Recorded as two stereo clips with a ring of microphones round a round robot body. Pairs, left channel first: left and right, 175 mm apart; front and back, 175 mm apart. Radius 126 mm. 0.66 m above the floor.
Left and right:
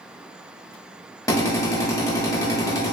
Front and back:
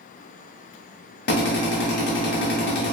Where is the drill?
20° left, 1.2 m.